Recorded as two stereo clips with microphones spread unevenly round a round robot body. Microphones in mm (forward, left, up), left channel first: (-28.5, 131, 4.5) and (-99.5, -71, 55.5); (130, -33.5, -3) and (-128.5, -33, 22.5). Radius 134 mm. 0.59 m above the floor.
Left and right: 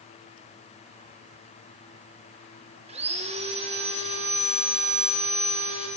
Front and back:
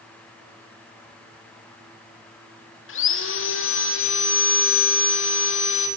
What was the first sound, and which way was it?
Sawing, 45° right.